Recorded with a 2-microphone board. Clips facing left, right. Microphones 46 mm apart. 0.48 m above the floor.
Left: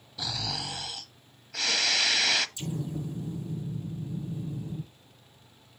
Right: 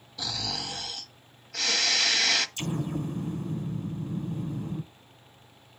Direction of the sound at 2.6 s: 60° right (ahead or behind).